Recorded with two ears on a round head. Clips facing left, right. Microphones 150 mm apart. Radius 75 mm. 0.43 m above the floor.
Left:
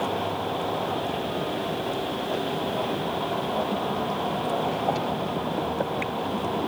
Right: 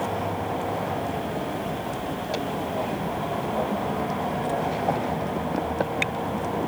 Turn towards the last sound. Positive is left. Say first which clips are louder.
# even
turn(degrees=-10)  # may be behind; listen again after turning